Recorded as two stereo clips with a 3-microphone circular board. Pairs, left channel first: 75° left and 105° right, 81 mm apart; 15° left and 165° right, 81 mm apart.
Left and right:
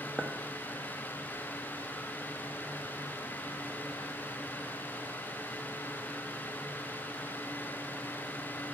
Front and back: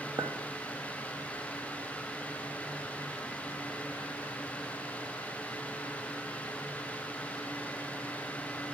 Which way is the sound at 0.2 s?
160° left.